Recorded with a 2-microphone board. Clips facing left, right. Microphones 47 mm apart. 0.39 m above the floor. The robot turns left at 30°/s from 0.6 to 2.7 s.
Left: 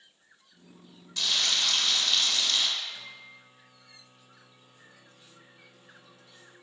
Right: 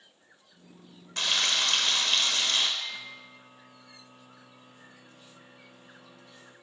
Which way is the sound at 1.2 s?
75° right.